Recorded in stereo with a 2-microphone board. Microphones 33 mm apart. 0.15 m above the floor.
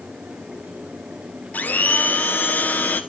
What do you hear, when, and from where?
1.5 s a blender: 60° left (ahead or behind), 1.1 m